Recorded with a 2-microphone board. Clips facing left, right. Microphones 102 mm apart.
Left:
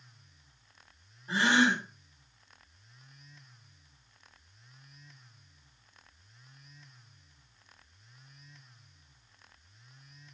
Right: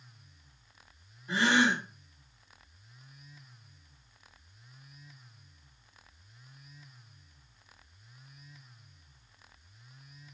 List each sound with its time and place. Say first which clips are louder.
1.3 s a gasp: even; 30° left (ahead or behind), 1.3 m